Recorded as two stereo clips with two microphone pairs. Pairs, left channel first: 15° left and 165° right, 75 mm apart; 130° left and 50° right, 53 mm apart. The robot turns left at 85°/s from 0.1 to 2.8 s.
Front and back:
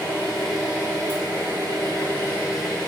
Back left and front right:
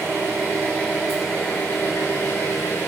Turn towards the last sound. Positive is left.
turn(degrees=90)